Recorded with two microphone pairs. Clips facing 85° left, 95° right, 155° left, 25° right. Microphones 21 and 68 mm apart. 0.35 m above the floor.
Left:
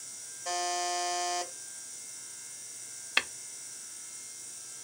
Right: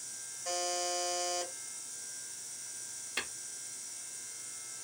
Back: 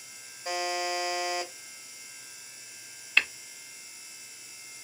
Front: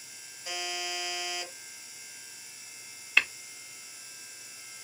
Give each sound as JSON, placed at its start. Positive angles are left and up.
{"t": 0.5, "sound": "a buzzer", "azimuth_deg": 160, "distance_m": 1.5}
{"t": 3.2, "sound": "tapping", "azimuth_deg": 60, "distance_m": 0.7}